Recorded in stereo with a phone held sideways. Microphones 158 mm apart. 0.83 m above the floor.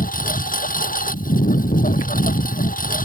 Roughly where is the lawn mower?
Left.